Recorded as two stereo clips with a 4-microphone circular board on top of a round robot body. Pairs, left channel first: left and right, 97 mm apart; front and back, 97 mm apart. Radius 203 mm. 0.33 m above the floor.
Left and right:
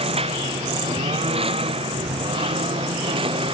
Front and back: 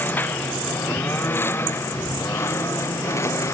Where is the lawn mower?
70° right; by 3.5 s 60° right.